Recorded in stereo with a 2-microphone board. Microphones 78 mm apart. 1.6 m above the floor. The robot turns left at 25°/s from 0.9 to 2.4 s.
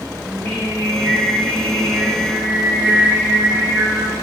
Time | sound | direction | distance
0.2 | singing | 35° left | 1.4 m